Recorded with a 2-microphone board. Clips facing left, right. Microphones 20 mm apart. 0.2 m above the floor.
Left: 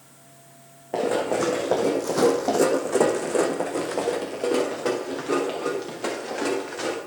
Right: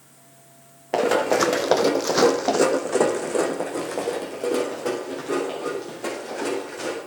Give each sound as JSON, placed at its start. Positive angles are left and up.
{"t": 0.9, "sound": "running footsteps", "side_deg": -75, "distance_m": 0.9}